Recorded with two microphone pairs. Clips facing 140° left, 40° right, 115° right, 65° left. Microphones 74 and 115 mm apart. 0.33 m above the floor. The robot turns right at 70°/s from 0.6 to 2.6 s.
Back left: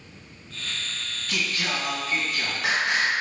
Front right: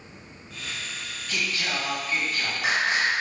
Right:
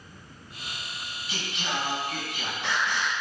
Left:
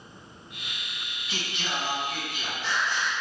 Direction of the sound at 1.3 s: 155° left.